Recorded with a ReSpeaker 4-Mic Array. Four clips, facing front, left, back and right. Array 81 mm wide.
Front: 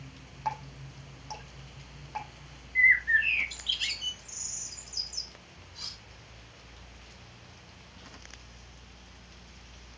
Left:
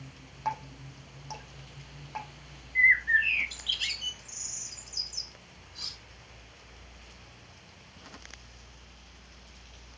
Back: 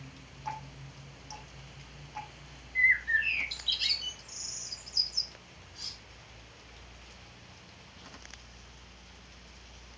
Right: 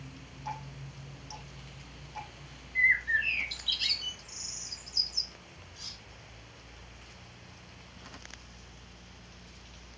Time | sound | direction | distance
0.5 | dripping | 50° left | 4.5 m
2.8 | a bird | 45° left | 1.3 m
5.8 | cutlery clinking | 30° left | 4 m